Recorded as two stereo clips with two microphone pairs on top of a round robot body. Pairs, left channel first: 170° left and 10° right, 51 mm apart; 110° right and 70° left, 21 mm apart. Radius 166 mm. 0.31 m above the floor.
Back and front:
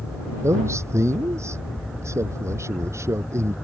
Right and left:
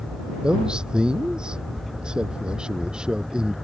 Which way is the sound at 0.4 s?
20° left.